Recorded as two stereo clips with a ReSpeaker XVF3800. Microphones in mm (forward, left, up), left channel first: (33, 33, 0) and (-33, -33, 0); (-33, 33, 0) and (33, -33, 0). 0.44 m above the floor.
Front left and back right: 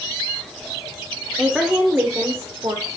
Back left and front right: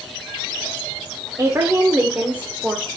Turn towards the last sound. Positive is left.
turn(degrees=-120)